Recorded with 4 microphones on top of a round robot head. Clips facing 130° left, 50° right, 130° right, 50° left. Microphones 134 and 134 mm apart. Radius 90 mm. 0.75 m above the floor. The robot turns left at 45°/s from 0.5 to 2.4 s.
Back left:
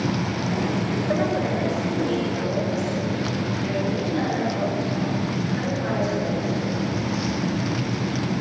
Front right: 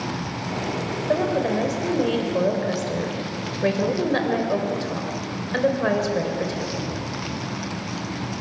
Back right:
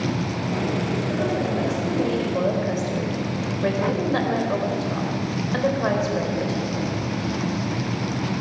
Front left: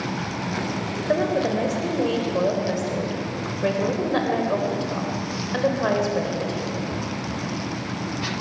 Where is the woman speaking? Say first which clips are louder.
Front right 3 dB, front left 6 dB; 25° left, 4 m; by 6.8 s 35° right, 4 m.